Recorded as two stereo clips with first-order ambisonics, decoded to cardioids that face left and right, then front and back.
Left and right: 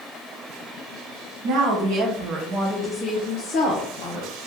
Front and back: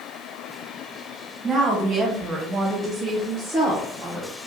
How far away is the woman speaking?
About 1.2 m.